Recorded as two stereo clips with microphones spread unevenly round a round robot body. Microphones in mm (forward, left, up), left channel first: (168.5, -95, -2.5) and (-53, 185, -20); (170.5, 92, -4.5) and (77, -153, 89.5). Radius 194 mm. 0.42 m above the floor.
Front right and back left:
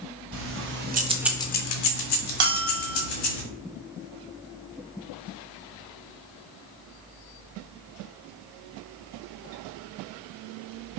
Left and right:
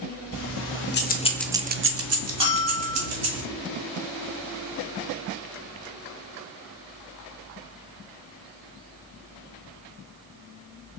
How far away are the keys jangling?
About 1.3 m.